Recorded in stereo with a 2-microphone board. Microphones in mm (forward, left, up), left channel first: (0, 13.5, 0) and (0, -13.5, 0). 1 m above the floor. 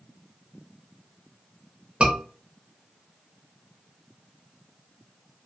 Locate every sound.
2.0 s a scream: 40° right (ahead or behind), 0.8 m